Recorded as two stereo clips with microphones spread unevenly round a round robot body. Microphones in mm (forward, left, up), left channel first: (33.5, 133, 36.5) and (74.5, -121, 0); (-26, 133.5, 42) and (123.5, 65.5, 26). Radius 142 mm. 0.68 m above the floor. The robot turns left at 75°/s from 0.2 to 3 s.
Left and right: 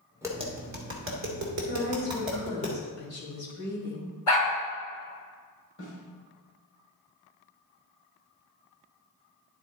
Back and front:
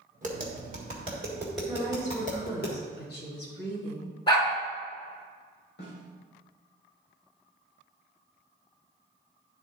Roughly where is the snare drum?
Behind left.